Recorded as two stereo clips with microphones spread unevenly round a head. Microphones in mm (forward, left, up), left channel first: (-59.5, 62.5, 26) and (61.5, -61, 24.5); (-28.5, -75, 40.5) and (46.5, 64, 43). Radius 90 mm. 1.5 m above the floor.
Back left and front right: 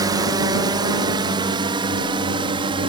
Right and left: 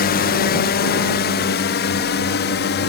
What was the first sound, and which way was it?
A drone, 110° right.